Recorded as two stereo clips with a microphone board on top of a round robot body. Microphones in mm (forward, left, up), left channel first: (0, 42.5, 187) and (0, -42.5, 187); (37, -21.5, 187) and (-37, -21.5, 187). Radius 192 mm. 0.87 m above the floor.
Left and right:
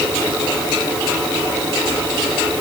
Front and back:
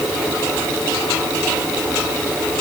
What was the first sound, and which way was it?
Only background noise.